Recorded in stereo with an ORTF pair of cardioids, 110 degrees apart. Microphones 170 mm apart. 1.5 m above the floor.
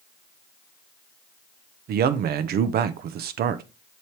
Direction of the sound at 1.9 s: 65° right.